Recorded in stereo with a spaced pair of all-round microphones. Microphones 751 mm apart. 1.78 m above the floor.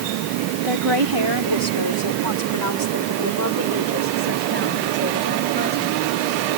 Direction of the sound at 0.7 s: 40° right (ahead or behind).